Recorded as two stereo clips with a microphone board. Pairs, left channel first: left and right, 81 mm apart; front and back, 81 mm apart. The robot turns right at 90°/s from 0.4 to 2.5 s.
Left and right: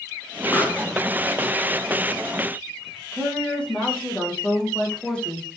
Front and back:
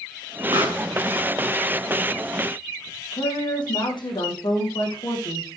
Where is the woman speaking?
15° left, 5.5 m.